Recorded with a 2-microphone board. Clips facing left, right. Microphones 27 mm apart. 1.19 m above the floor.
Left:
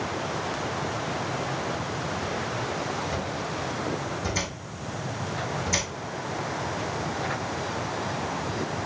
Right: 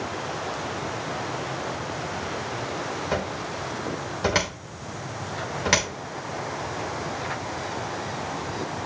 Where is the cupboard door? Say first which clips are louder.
Right 2 dB; 80° right, 2.5 m.